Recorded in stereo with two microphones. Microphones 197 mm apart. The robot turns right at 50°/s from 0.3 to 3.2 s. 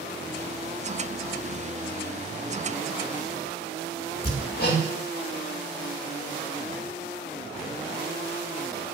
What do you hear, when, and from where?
4.2 s hammering: 55° left (ahead or behind), 1.3 m